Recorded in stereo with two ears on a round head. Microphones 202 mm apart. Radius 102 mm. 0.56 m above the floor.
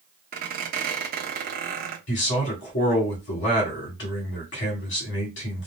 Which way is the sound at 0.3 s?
40° right (ahead or behind).